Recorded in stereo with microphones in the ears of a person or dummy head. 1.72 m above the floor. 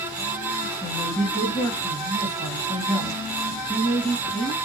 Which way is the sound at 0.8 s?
15° left (ahead or behind).